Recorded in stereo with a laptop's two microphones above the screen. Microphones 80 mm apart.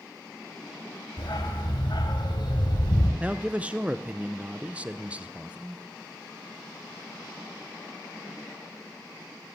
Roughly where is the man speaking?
Centre.